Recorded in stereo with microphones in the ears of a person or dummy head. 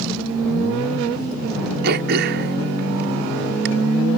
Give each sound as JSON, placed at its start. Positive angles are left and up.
{"t": 1.8, "sound": "throat clearing", "side_deg": -60}